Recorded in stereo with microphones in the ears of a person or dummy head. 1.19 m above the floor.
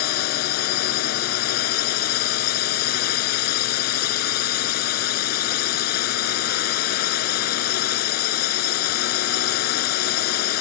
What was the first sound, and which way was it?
A drone, 55° left (ahead or behind).